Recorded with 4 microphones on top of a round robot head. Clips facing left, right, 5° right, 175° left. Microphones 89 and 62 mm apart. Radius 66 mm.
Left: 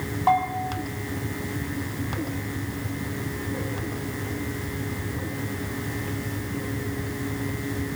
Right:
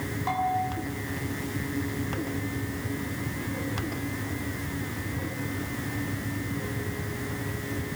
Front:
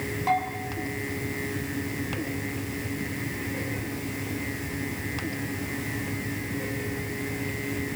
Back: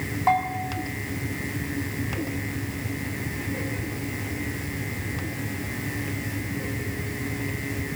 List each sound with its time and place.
0.3 s a bell: 125° left, 5.5 m